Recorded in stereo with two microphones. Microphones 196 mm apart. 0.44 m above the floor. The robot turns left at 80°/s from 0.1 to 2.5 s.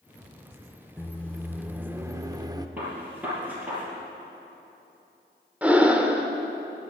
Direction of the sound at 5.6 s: 10° right (ahead or behind).